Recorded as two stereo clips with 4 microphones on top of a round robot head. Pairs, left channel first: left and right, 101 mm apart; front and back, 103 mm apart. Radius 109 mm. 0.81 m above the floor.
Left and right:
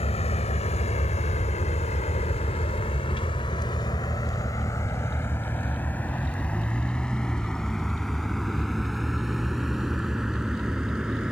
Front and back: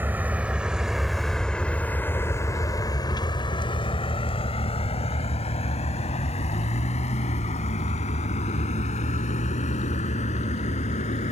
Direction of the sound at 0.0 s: 105° left.